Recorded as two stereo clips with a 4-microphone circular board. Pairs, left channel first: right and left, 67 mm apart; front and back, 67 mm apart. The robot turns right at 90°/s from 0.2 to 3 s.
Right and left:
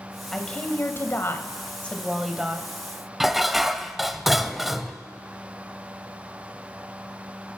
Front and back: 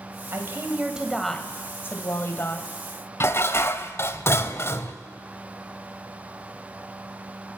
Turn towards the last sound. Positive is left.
turn(degrees=5)